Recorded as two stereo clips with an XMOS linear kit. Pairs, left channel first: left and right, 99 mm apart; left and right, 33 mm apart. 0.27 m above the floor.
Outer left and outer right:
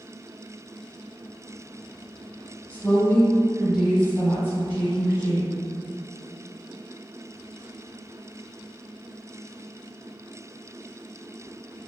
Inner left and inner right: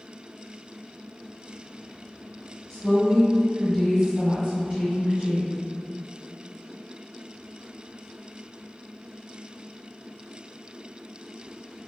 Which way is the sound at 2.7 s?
20° left (ahead or behind).